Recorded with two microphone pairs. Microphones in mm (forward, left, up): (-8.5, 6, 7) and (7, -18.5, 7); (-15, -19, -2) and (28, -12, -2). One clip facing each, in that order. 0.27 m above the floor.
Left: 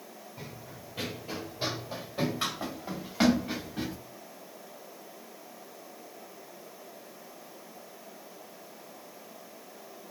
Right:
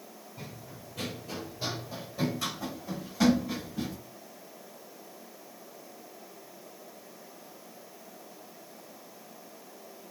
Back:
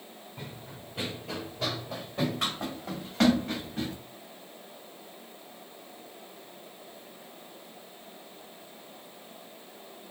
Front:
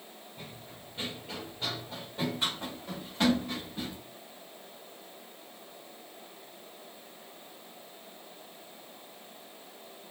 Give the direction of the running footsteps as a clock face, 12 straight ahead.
5 o'clock.